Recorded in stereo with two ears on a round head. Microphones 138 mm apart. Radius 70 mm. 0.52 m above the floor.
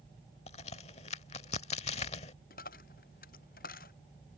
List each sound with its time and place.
0.5 s a crack: 45° left (ahead or behind)
2.5 s a dropped coin: 70° left (ahead or behind)